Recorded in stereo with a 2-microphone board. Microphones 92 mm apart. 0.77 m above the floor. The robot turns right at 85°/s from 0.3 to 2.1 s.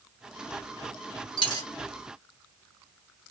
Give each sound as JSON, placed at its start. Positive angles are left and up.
{"t": 1.4, "sound": "a dropped coin", "side_deg": 70, "distance_m": 1.3}